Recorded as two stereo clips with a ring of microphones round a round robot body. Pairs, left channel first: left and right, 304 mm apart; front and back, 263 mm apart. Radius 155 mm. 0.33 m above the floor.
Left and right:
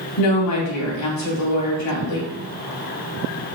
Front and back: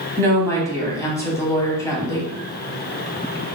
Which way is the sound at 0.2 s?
75° left.